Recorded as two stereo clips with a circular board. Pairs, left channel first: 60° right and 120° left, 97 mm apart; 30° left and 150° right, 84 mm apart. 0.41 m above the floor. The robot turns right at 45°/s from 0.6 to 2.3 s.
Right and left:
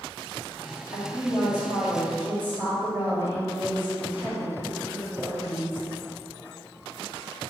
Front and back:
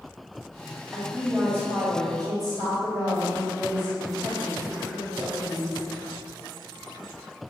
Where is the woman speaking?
125° left, 2 m; by 5.9 s 175° right, 2 m.